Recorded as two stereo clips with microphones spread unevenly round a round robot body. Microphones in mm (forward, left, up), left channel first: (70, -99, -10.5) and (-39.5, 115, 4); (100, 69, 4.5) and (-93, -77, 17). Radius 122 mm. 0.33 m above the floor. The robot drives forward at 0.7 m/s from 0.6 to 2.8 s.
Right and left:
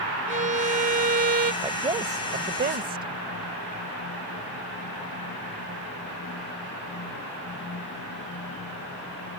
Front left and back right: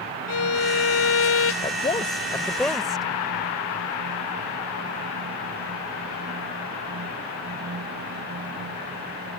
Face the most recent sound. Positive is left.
turn(degrees=125)